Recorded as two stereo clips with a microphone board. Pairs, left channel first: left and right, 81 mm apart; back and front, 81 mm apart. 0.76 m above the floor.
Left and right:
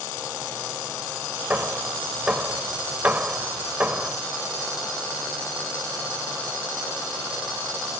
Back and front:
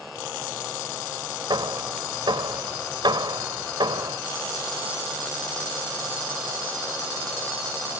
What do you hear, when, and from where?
1.5 s hammering: 20° right